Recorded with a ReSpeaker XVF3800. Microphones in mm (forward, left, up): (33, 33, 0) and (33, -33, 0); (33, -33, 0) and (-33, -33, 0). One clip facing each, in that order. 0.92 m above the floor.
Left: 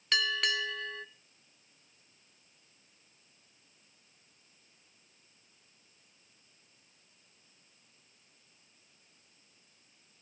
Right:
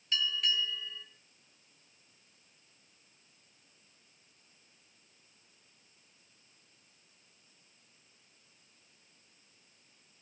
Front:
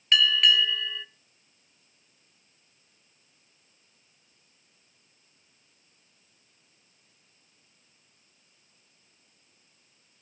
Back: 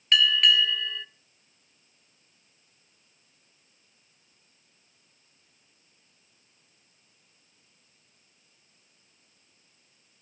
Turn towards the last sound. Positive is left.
turn(degrees=90)